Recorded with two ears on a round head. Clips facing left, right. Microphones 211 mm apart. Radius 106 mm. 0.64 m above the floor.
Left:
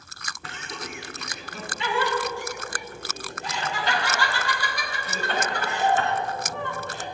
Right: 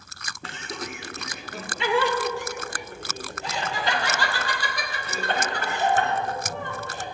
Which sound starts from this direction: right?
Laughter, at 0.4 s.